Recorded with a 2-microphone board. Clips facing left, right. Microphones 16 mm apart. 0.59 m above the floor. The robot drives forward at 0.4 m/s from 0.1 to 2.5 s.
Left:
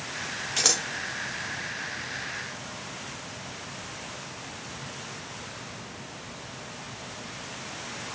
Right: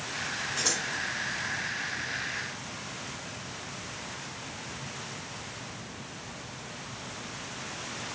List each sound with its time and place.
0.6 s scissors: 60° left (ahead or behind), 1.1 m; by 0.8 s 55° left (ahead or behind), 1.1 m